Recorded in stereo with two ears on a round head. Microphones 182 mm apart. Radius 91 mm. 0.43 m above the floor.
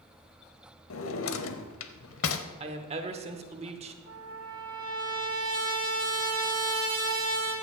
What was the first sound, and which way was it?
A drawer, 75° left (ahead or behind).